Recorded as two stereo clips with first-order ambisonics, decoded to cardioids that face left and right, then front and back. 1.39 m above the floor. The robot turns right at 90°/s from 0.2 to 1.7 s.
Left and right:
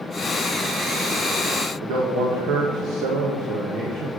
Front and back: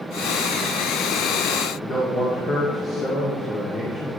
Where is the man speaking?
70° right, 1.5 m.